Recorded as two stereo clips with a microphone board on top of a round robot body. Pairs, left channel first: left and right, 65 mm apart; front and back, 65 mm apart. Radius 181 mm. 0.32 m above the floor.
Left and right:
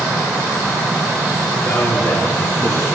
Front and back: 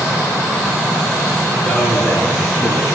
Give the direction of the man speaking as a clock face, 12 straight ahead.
10 o'clock.